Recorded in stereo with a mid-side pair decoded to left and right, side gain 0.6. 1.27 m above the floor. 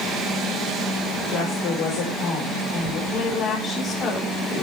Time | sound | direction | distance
1.3 | a woman speaking | 65° left | 5 m
3.1 | a woman speaking | 35° left | 10 m